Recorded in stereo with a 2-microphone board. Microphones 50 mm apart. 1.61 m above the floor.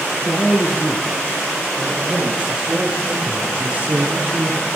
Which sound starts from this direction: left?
A man speaking, at 0.2 s.